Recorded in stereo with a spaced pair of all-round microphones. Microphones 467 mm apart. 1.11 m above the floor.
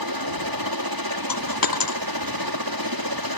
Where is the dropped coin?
45° left (ahead or behind).